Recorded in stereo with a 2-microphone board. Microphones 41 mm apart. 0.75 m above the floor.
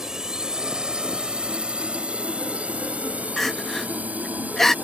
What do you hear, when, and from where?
0.0 s a drone: 15° right (ahead or behind); by 4.8 s 45° right (ahead or behind)
3.4 s crying: 10° left (ahead or behind)